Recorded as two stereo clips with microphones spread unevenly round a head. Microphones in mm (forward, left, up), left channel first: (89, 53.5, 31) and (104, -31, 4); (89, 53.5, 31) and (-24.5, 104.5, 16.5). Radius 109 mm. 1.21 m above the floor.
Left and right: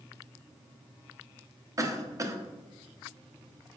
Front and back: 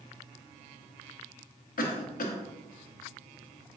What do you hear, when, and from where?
1.8 s a cough: 30° right, 0.7 m